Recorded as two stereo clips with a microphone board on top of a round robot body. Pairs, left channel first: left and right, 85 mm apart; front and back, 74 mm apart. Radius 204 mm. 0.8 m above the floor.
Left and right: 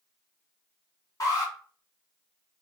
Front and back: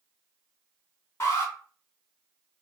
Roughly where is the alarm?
Ahead left.